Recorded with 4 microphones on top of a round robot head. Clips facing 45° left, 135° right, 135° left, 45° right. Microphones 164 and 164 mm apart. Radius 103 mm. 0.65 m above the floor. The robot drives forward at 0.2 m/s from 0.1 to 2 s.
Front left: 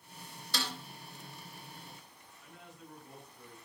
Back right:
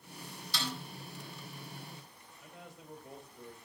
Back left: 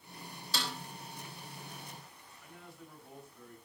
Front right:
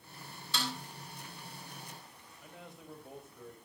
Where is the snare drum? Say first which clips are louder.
Even, front right 1 dB; 85° left, 3 m.